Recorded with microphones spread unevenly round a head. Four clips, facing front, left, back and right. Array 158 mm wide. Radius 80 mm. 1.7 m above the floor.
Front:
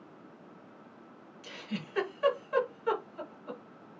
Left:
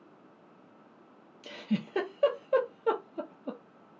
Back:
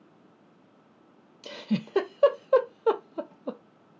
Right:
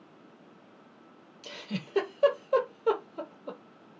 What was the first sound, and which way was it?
A giggle, 170° left.